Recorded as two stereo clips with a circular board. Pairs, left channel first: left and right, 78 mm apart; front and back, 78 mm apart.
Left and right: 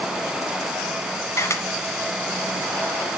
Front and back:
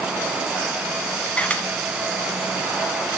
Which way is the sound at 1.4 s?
65° left.